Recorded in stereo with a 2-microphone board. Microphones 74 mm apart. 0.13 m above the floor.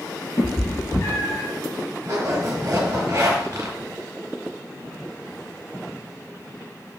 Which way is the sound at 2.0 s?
45° right (ahead or behind).